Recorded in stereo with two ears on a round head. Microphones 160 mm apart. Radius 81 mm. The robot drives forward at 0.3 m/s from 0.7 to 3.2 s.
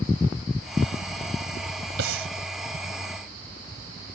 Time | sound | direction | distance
2.0 | breathing | 80° right | ?